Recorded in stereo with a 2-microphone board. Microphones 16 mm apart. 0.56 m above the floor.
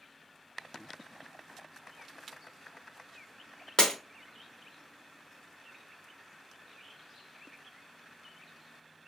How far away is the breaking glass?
About 0.9 m.